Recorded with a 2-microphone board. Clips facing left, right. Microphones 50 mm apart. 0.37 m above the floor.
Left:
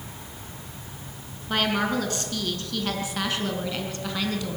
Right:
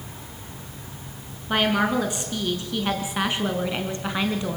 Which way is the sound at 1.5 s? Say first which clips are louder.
Right 3 dB; 15° right (ahead or behind).